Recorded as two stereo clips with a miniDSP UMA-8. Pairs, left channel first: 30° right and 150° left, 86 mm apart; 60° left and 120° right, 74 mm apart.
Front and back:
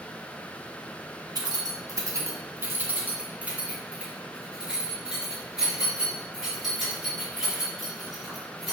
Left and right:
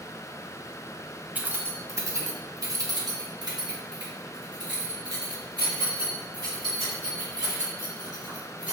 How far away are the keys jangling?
About 1.4 m.